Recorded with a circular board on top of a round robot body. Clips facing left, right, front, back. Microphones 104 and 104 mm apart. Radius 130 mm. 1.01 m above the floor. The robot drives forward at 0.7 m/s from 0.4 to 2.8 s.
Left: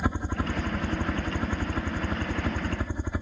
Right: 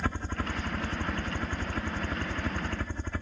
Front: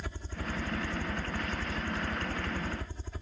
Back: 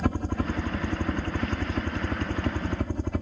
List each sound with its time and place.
0.0 s a helicopter: 165° left